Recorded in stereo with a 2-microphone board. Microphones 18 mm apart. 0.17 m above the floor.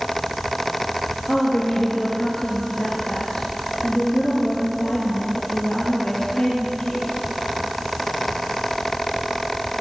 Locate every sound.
1.3 s a woman speaking: 50° left (ahead or behind), 3.5 m